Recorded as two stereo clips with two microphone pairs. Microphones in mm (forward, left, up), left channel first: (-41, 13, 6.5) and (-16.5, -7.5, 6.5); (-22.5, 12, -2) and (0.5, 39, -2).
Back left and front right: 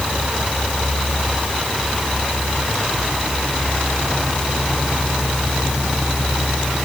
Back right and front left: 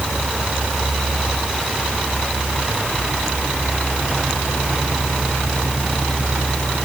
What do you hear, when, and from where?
Only background noise.